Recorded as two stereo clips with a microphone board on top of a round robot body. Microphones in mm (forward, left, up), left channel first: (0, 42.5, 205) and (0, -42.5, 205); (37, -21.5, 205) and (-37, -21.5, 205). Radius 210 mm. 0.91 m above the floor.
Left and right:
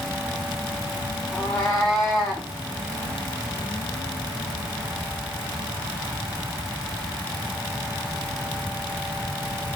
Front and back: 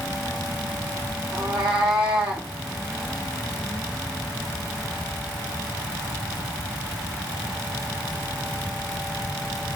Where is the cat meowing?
155° left, 0.7 m.